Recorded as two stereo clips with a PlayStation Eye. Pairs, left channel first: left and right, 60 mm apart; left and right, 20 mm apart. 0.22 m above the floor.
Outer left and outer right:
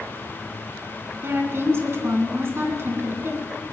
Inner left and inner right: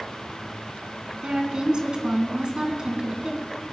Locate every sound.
1.2 s a woman speaking: 45° right (ahead or behind), 2.5 m